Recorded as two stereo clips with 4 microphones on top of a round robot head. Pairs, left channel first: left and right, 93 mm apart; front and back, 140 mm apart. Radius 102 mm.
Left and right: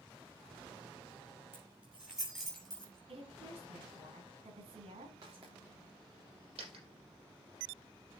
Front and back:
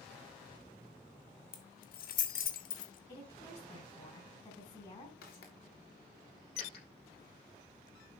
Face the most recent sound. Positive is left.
turn(degrees=-60)